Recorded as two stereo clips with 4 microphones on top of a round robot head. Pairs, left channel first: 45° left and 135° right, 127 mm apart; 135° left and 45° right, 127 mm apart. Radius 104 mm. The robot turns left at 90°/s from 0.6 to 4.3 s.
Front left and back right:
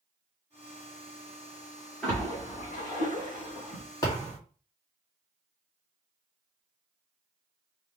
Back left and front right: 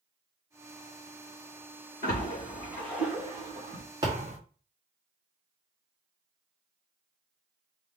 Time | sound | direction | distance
2.0 | a splash | 130° left | 2.5 m
4.0 | a thud | straight ahead | 1.3 m